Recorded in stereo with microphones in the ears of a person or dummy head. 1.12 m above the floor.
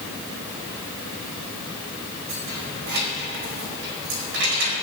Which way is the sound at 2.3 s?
60° right (ahead or behind).